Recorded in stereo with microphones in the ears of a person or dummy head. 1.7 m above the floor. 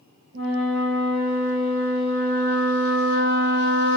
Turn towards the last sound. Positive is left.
turn(degrees=-60)  # may be behind; listen again after turning